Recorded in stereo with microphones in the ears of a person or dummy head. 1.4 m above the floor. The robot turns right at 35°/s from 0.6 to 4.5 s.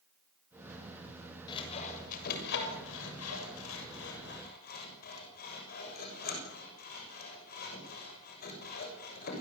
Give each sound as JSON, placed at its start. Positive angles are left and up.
{"t": 1.5, "sound": "sawing", "side_deg": 25, "distance_m": 6.5}